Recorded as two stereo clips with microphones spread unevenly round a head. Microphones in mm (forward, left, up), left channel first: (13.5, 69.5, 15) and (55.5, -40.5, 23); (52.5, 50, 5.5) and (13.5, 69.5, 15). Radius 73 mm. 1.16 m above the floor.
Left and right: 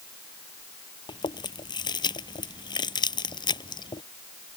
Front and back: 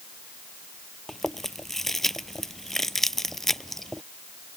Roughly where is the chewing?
Ahead left.